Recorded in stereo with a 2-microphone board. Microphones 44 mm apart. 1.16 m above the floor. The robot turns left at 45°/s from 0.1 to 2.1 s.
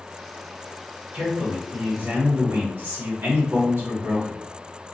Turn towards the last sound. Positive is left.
turn(degrees=-95)